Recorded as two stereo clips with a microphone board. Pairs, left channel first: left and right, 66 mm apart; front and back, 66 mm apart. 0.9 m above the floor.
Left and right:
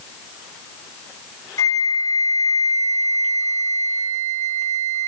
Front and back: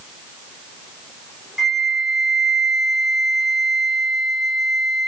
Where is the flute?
95° left, 1.9 m.